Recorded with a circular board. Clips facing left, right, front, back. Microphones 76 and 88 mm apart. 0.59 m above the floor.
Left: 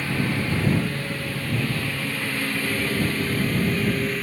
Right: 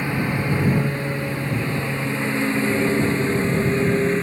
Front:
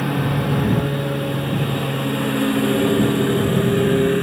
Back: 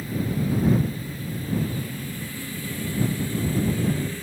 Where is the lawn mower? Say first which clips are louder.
Right 2 dB, front 6 dB; 20° right; by 4.2 s 25° right.